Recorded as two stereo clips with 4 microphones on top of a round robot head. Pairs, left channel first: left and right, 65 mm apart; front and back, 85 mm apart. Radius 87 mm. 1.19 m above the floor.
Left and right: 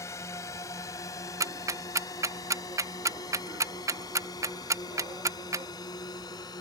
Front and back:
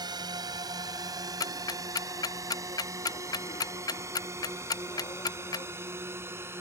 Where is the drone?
140° left; by 6.6 s 115° left.